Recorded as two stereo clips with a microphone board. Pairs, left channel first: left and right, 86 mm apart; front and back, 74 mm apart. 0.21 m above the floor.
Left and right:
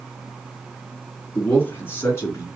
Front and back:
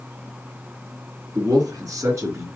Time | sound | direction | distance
1.4 | a man speaking | 155° left | 2.5 m